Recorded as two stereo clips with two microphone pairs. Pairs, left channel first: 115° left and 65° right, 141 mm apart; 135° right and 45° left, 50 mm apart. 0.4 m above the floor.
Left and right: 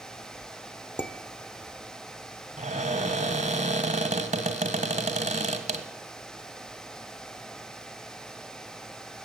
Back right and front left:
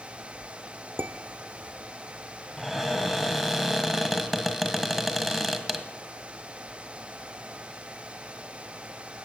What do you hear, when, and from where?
1.0 s dishes clattering: 45° left, 0.7 m
2.6 s a cupboard door: 45° right, 1.3 m